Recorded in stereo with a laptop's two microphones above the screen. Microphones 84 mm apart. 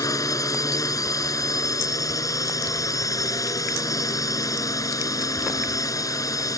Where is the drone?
45° left (ahead or behind).